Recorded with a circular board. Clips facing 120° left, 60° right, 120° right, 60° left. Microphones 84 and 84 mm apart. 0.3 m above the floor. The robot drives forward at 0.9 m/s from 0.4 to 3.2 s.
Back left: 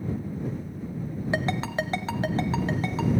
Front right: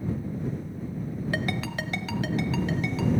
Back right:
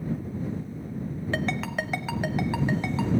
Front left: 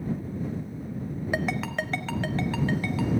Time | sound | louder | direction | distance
1.3 | a ringtone | back left 5 dB, even | 115° left | 0.7 m